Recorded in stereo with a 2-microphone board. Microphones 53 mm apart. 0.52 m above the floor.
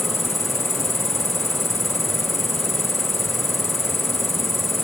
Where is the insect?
Centre (ahead or behind).